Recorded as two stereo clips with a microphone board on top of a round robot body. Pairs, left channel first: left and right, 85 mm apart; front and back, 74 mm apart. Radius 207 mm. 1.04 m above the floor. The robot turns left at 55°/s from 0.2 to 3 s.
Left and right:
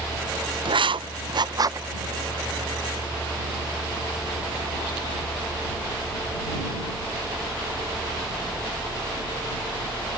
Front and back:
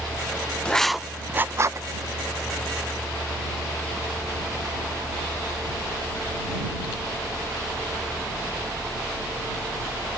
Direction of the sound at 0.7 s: 75° right.